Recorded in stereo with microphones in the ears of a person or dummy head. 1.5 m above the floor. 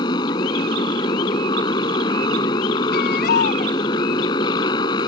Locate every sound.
0.0 s a motorcycle: 20° left (ahead or behind)
2.9 s a baby crying: 45° left (ahead or behind)